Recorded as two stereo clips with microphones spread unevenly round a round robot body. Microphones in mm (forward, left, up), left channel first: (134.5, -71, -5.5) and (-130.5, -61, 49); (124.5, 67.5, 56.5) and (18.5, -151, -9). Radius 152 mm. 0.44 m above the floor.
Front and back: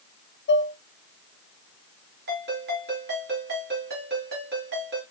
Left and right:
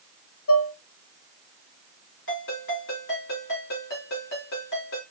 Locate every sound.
0.5 s dishes clattering: 30° left, 0.9 m
2.3 s a ringtone: 120° left, 4 m